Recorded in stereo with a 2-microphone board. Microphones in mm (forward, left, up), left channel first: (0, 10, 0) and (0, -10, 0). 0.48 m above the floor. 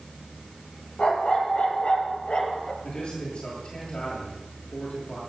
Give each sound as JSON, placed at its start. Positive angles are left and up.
{"t": 1.0, "sound": "a dog barking", "side_deg": 80, "distance_m": 4.5}
{"t": 2.8, "sound": "a man speaking", "side_deg": 70, "distance_m": 9.0}